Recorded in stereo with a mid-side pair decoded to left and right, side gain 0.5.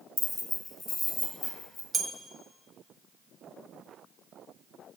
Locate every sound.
0.2 s keys jangling: 15° left, 0.7 m; by 1.8 s 35° left, 2.5 m
1.9 s a bell: 30° right, 0.5 m